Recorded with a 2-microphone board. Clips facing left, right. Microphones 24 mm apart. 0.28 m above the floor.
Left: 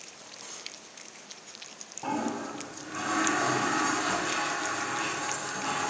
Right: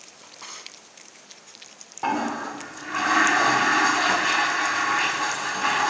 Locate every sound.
0.2 s a drawer: 45° right (ahead or behind), 0.7 m
2.0 s a toilet flushing: 60° right (ahead or behind), 0.6 m